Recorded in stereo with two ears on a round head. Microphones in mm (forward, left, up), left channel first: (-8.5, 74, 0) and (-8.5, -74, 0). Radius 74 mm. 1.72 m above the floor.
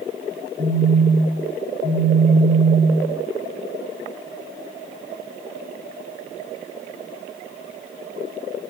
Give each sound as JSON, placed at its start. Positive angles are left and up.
{"t": 0.6, "sound": "a phone buzzing", "side_deg": -65, "distance_m": 7.0}